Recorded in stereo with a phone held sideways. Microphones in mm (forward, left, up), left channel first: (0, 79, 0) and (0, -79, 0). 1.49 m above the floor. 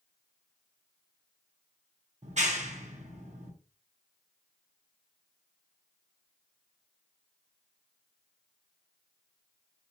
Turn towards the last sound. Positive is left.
turn(degrees=-50)  # may be behind; listen again after turning